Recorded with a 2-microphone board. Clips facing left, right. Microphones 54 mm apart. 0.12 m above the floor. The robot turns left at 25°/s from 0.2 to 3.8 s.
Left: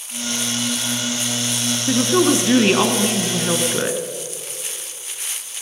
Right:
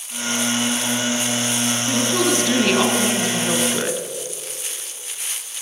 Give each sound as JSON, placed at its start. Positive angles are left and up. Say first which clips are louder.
{"t": 1.9, "sound": "a woman speaking", "louder": "left 5 dB", "side_deg": 25, "distance_m": 1.2}